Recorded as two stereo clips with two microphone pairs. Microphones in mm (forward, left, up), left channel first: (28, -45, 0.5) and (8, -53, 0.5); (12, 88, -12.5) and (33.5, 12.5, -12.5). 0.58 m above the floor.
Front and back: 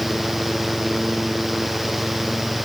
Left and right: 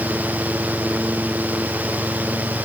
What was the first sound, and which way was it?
Only background noise.